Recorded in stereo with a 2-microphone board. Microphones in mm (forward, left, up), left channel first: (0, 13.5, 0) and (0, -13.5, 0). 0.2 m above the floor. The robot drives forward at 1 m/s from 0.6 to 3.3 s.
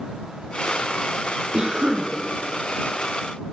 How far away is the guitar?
No guitar in this recording.